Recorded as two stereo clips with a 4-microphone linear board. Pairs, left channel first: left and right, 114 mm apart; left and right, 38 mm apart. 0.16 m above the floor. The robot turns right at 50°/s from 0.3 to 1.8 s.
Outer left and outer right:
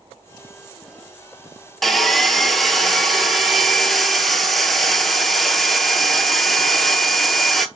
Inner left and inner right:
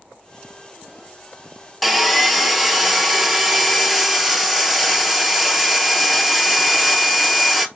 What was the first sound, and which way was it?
Sawing, centre (ahead or behind).